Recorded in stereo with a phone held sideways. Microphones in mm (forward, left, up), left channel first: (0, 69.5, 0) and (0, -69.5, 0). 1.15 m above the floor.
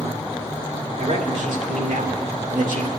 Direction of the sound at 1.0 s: 70° right (ahead or behind).